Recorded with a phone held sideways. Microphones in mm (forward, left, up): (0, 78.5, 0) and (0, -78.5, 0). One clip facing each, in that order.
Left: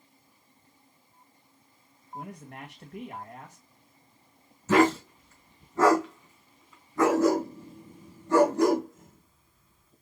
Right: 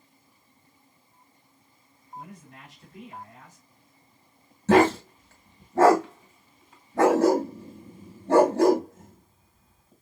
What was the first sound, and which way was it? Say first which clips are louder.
A man speaking: left 3 dB; 70° left (ahead or behind).